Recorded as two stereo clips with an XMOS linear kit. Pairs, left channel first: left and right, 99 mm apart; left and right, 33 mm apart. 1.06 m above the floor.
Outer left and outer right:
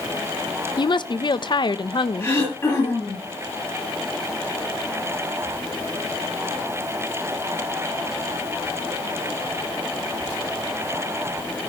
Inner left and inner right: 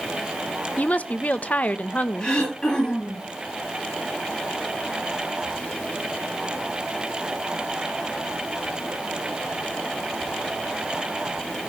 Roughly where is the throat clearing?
Left.